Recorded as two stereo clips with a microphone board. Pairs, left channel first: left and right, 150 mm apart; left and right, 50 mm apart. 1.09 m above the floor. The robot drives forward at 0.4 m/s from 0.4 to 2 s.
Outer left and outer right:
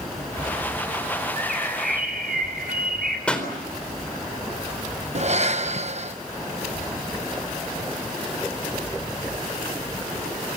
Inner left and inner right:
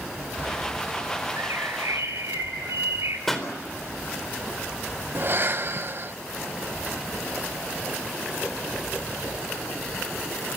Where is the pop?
5° left (ahead or behind), 4 m.